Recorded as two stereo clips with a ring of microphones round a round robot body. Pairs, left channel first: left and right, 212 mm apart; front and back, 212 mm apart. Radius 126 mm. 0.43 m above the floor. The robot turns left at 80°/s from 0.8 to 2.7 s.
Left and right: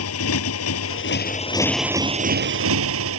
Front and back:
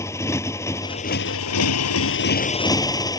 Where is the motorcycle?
80° left; by 3.2 s 75° right.